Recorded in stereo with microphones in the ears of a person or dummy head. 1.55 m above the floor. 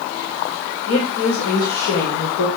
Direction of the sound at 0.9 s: 85° left.